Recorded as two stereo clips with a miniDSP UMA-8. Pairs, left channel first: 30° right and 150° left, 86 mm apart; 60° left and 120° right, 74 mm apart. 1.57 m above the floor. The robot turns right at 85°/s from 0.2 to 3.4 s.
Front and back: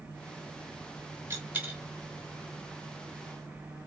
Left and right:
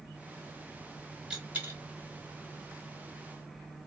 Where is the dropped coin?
170° left, 1.2 m; by 1.8 s 145° right, 1.2 m.